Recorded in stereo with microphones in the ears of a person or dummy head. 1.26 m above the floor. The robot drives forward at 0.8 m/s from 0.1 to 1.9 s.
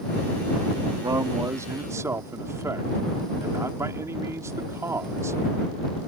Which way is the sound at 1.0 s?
25° right (ahead or behind).